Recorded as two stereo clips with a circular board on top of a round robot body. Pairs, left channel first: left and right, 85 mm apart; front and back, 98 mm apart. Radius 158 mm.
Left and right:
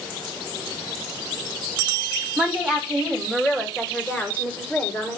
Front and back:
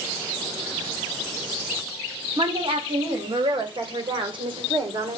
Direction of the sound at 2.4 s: 165° right.